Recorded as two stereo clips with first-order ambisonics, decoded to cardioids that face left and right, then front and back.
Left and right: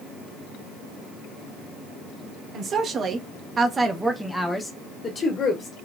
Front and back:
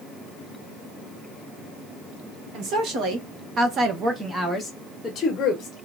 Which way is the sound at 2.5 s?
145° right.